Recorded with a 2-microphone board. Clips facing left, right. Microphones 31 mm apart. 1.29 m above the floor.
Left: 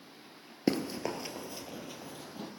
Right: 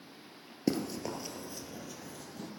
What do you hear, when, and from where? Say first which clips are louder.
0.7 s running footsteps: left 2 dB; 30° left (ahead or behind), 1.4 m; by 2.5 s 25° left (ahead or behind), 2.5 m